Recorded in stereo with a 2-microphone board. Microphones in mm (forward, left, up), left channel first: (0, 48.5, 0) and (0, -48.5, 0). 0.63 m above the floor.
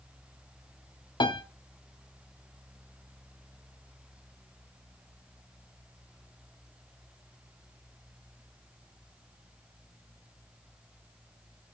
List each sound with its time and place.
1.2 s a piano: 55° left (ahead or behind), 0.8 m